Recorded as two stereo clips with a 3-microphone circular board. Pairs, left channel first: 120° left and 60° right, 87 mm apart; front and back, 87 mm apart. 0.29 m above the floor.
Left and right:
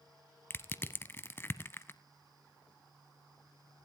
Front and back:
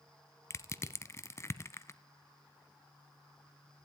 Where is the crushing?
55° left, 0.6 m.